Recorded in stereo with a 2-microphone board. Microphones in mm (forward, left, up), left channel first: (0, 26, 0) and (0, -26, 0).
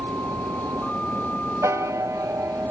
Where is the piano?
85° right.